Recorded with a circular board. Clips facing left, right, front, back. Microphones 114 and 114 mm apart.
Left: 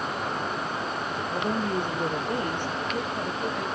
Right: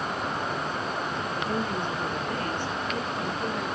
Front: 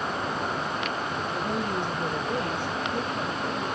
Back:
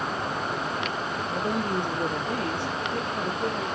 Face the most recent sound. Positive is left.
turn(degrees=-175)